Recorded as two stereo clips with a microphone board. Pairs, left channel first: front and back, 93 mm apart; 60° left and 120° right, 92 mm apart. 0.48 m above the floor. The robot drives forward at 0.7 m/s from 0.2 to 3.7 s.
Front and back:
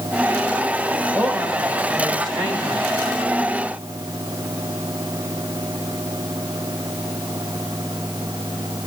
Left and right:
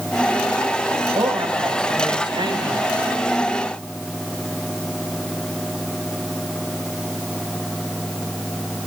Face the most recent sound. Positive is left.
turn(degrees=-150)